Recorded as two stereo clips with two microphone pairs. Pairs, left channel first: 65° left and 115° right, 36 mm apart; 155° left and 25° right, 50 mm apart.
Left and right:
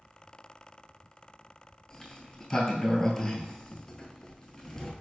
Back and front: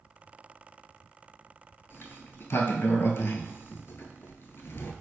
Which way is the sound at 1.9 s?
135° left.